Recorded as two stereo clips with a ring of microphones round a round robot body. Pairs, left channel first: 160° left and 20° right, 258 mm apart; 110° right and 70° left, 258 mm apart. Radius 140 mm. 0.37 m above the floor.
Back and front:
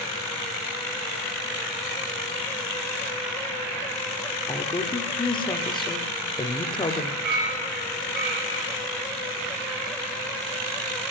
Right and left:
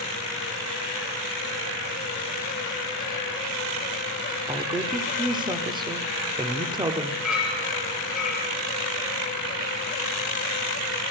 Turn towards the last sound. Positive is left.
turn(degrees=-20)